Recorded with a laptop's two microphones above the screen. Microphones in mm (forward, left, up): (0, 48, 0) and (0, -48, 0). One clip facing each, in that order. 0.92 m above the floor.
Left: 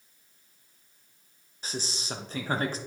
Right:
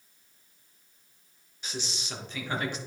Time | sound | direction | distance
1.6 | a man speaking | 40° left (ahead or behind) | 1.1 m